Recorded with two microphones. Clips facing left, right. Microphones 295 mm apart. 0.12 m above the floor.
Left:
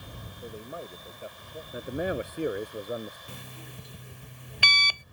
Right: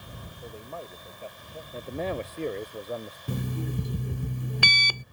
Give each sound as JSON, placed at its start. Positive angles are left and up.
{"t": 0.4, "sound": "a man speaking", "side_deg": 15}
{"t": 1.7, "sound": "a man speaking", "side_deg": 15}
{"t": 3.3, "sound": "an alarm clock", "side_deg": -55}